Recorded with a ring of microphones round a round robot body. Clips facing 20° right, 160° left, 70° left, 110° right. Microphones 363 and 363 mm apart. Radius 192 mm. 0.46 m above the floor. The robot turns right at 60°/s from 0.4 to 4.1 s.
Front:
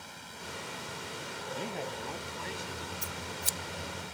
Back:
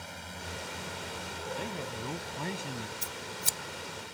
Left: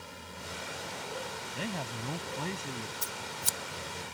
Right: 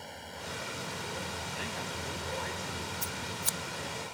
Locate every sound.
0.0 s a drone: 145° left; by 4.2 s 5° left
1.5 s a man speaking: 60° left; by 2.9 s 145° left
3.0 s scissors: 90° left; by 4.2 s 160° left